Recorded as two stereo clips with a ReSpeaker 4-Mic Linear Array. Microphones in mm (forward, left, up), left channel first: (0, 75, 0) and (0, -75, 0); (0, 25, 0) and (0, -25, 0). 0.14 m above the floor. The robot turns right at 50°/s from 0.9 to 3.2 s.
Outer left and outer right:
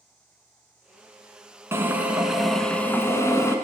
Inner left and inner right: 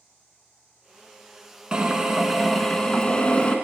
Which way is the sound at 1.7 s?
35° right.